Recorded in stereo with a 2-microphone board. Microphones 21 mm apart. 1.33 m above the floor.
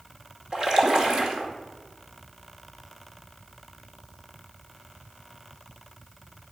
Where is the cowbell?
I don't hear a cowbell.